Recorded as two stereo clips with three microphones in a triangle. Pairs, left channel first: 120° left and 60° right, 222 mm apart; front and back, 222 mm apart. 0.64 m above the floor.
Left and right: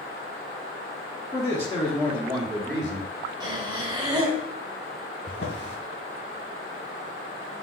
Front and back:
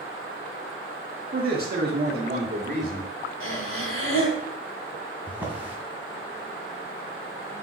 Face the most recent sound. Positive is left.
turn(degrees=100)